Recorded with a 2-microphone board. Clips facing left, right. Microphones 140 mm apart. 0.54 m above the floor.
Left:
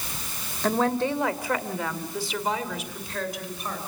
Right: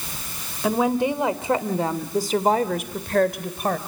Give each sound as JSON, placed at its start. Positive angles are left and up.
{"t": 0.6, "sound": "a woman speaking", "side_deg": -10, "distance_m": 2.0}